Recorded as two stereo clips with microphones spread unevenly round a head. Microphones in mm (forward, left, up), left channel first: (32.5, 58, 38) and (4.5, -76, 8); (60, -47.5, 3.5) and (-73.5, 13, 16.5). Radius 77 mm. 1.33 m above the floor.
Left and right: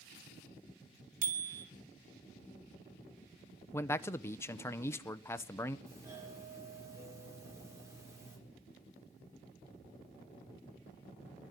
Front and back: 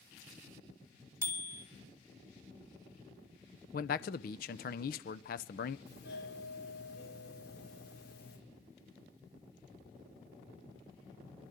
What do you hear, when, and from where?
1.2 s a bicycle bell: 135° right, 2.5 m
3.7 s a man speaking: 5° left, 0.6 m
5.9 s a doorbell: 30° right, 4.5 m